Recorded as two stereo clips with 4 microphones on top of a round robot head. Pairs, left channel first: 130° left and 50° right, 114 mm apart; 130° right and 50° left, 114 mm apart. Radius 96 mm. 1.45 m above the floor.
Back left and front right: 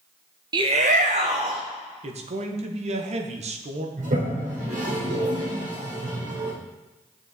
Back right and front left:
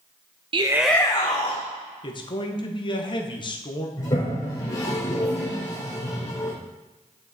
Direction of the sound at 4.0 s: 70° right.